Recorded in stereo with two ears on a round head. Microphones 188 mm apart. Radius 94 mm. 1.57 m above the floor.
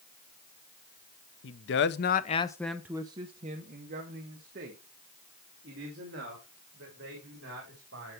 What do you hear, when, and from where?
1.4 s a man speaking: 65° left (ahead or behind), 0.8 m; by 8.2 s 55° right (ahead or behind), 4 m